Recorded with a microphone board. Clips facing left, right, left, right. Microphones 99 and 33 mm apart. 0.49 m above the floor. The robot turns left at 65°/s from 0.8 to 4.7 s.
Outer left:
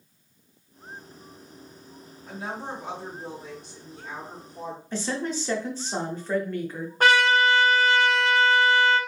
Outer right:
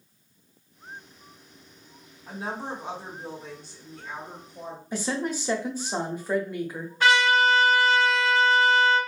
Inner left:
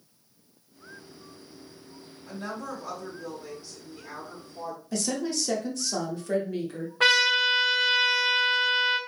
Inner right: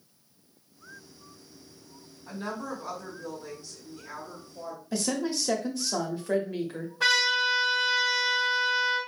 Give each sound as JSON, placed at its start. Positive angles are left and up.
{"t": 2.3, "sound": "a woman speaking", "azimuth_deg": -115, "distance_m": 1.6}
{"t": 4.9, "sound": "a woman speaking", "side_deg": -10, "distance_m": 0.8}
{"t": 7.0, "sound": "a trumpet", "side_deg": 45, "distance_m": 0.8}